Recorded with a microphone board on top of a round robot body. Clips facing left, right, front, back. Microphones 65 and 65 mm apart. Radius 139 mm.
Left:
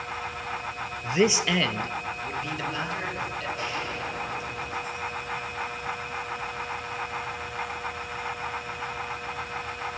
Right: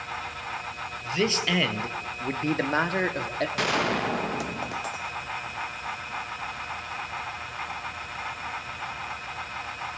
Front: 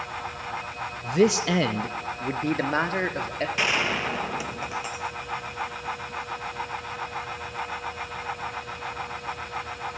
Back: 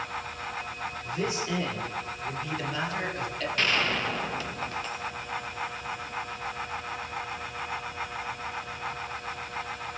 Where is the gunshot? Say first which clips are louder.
Right 6 dB, front 1 dB; 80° right, 1.3 m.